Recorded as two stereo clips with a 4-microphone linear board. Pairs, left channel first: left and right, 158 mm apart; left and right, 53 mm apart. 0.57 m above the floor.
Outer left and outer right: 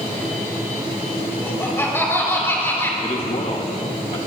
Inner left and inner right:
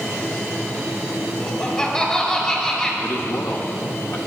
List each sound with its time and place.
1.4 s laughter: 15° left (ahead or behind), 5 m
3.0 s a man speaking: 45° left (ahead or behind), 1.5 m